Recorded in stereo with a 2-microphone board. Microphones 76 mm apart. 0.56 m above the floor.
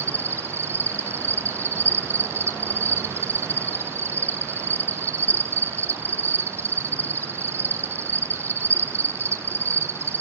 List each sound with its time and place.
0.0 s an insect: 30° right (ahead or behind), 0.9 m